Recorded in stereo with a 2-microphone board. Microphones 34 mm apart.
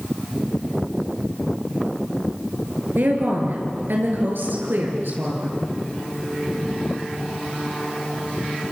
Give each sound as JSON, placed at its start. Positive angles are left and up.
{"t": 3.0, "sound": "a woman speaking", "side_deg": -75, "distance_m": 6.5}